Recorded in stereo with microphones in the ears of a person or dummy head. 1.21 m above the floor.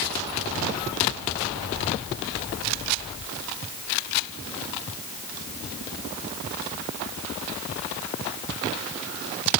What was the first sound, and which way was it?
Only background noise.